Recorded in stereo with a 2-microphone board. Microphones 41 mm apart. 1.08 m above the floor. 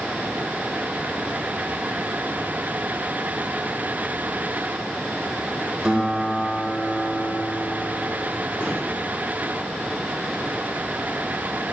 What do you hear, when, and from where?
5.8 s a guitar: 15° right (ahead or behind), 1.6 m
8.6 s a gunshot: 70° left (ahead or behind), 3 m